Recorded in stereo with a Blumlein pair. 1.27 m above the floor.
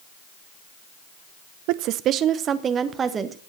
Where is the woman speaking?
45° right, 0.6 m; by 3.4 s 20° right, 1.5 m.